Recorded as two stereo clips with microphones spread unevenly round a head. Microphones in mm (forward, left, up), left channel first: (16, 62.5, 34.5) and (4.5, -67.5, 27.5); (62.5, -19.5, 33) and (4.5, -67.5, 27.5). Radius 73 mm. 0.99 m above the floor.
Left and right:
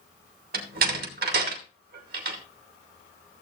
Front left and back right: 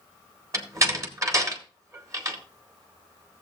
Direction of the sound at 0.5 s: 90° right.